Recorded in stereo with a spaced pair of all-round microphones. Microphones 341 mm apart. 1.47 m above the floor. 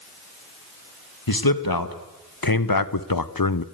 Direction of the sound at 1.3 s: 90° left.